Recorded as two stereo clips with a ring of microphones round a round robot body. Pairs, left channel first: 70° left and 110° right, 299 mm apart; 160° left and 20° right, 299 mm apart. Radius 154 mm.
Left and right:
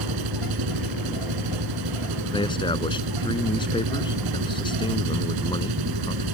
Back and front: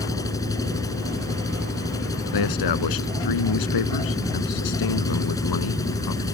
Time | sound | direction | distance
0.0 | an engine running | 125° right | ?
2.3 | a man speaking | 145° left | ?